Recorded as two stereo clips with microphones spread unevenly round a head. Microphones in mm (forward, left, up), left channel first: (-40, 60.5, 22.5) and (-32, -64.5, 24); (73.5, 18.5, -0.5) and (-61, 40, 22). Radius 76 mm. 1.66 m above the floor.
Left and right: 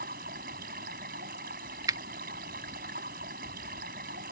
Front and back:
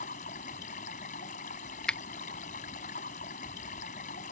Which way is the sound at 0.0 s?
55° right.